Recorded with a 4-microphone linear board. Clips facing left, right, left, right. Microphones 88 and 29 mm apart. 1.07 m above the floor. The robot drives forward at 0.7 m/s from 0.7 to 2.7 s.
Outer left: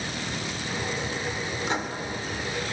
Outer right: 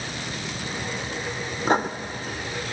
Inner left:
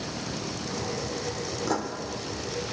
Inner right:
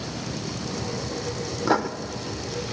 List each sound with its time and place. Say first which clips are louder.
1.6 s writing: outer right 9 dB, inner right 7 dB; 45° right (ahead or behind), 1.1 m; by 1.9 s 50° right (ahead or behind), 1.1 m